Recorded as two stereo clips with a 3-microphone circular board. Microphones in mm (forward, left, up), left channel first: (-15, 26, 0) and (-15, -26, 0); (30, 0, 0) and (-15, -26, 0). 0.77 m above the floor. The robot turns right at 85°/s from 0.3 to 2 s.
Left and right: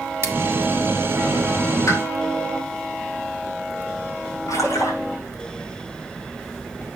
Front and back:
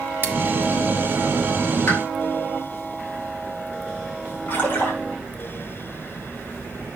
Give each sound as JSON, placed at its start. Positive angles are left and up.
{"t": 0.2, "sound": "scissors", "azimuth_deg": -115, "distance_m": 1.3}
{"t": 1.9, "sound": "a pop", "azimuth_deg": 70, "distance_m": 3.5}
{"t": 4.5, "sound": "a splash", "azimuth_deg": 75, "distance_m": 5.0}